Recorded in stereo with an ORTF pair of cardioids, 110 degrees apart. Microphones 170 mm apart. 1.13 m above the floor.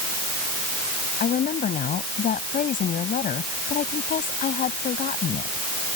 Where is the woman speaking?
50° left.